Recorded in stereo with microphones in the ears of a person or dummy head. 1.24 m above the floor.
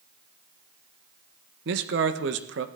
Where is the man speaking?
70° right (ahead or behind), 1.5 m.